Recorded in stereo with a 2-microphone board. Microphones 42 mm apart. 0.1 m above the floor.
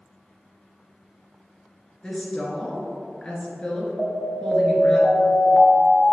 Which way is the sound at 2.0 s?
15° left (ahead or behind).